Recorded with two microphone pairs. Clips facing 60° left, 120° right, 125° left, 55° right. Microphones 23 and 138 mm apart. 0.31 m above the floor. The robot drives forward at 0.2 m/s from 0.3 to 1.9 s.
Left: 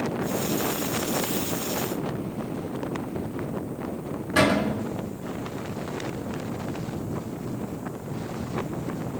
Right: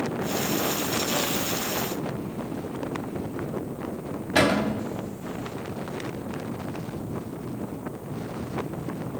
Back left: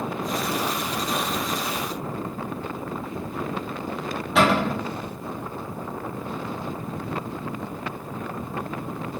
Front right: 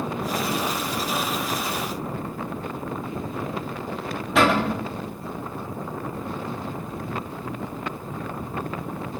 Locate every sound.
4.3 s a cupboard door: 145° right, 0.9 m